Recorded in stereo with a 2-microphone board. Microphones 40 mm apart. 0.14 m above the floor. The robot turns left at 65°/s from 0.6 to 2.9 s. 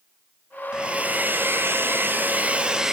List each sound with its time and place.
0.7 s a hair dryer: 25° right, 1.4 m; by 2.9 s 165° right, 1.4 m